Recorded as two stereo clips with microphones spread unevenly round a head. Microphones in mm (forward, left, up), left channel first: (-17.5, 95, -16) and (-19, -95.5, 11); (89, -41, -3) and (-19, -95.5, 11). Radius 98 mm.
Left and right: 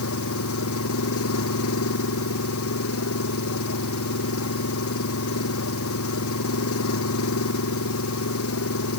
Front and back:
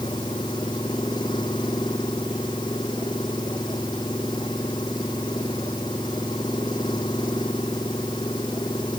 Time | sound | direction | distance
0.0 | an engine running | 95° left | ?